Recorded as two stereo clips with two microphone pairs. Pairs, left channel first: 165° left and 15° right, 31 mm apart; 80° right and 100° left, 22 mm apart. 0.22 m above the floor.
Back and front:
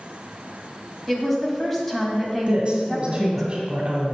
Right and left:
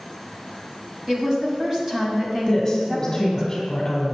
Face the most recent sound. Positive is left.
turn(degrees=-30)